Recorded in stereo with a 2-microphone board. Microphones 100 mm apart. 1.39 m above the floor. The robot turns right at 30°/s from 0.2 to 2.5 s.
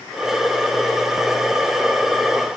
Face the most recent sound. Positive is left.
No sound to turn to.